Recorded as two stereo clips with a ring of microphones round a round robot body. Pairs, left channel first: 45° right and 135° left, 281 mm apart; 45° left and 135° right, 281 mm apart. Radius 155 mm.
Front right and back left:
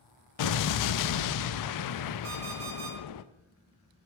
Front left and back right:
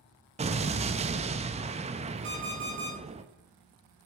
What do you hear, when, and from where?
0.4 s an explosion: 65° right, 0.6 m
2.2 s an alarm clock: 175° left, 4 m